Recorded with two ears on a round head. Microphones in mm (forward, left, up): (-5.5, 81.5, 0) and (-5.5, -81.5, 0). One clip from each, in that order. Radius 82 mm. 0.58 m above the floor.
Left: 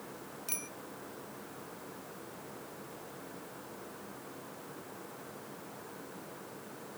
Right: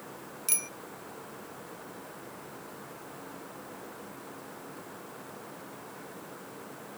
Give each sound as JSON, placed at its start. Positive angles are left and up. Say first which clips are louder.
{"t": 0.5, "sound": "a bicycle bell", "louder": "right 7 dB", "side_deg": -30}